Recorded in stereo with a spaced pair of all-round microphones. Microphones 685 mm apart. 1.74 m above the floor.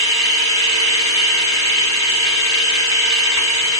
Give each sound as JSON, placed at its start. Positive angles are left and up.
{"t": 0.0, "sound": "a machine running", "side_deg": 25, "distance_m": 3.0}